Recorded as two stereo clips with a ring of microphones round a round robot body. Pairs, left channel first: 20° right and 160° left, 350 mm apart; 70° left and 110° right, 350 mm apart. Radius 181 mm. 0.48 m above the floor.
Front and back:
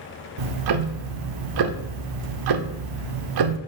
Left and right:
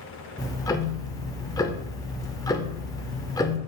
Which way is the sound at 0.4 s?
145° left.